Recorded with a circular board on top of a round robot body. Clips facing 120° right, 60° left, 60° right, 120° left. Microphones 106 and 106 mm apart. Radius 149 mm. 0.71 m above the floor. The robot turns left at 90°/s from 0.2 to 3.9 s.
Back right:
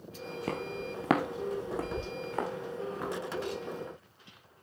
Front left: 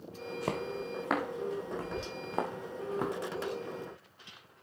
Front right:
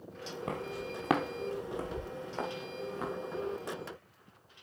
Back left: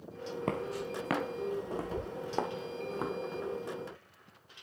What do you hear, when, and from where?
0.5 s footsteps: 115° left, 0.7 m; by 3.1 s 55° left, 3.5 m